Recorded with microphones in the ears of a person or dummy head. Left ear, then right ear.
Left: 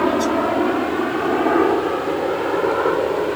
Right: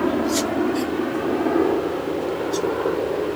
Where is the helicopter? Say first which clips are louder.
Left 4 dB; 35° left (ahead or behind); by 3.4 s 50° left (ahead or behind).